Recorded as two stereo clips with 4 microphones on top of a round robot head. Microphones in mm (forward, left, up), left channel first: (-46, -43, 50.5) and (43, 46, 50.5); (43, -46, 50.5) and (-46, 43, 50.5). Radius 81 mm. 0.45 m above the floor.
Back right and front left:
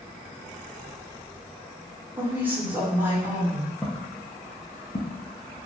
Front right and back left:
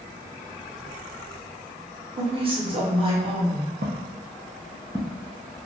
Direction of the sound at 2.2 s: 115° left.